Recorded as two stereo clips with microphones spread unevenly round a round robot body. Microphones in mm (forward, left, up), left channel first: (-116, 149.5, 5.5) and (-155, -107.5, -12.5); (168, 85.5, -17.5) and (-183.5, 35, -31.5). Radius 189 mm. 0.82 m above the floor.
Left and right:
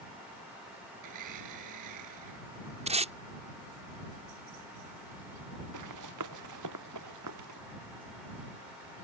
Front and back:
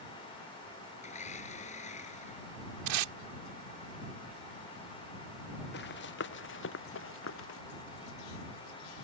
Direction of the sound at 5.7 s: 55° right.